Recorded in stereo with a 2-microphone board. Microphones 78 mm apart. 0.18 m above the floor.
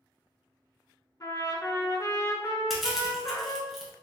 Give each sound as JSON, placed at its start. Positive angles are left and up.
{"t": 1.2, "sound": "a trumpet", "side_deg": 45, "distance_m": 0.6}
{"t": 2.7, "sound": "crushing", "side_deg": 0, "distance_m": 1.2}